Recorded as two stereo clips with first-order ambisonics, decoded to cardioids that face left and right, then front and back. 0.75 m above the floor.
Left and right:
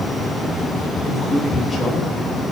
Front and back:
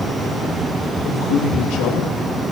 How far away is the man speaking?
About 3 m.